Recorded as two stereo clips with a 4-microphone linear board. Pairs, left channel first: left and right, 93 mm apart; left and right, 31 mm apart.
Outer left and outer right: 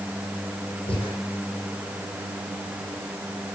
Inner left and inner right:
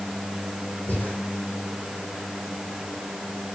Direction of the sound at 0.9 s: 80° left.